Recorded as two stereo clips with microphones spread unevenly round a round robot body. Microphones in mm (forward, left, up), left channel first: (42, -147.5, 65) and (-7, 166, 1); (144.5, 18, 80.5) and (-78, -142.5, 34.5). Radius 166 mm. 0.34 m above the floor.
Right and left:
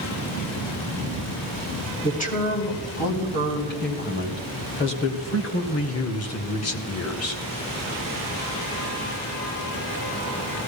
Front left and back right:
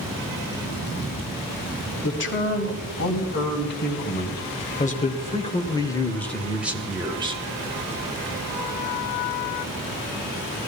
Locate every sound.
2.0 s a man speaking: 10° right, 4 m; by 7.4 s 110° right, 1.7 m